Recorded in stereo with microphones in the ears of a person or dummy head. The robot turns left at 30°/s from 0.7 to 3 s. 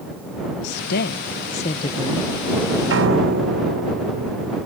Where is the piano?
70° right (ahead or behind); by 4.6 s 75° right (ahead or behind).